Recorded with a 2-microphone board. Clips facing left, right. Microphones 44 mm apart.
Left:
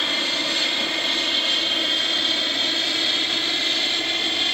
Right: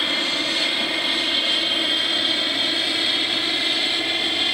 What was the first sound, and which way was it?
An aircraft, 10° right (ahead or behind).